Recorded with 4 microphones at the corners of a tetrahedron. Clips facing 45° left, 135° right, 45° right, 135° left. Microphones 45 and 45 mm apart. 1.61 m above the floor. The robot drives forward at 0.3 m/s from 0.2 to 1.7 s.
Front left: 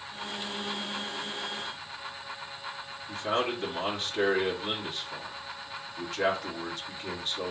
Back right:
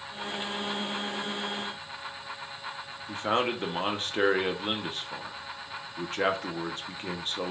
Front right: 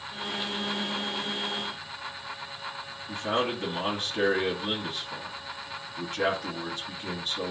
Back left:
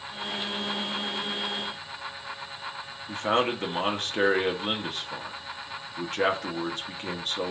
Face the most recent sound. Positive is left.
turn(degrees=175)